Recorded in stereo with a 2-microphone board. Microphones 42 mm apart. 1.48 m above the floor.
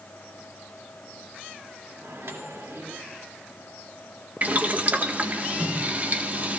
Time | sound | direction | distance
2.0 | a microwave | 80° right | 2.5 m
4.4 | boiling | 40° right (ahead or behind) | 1.5 m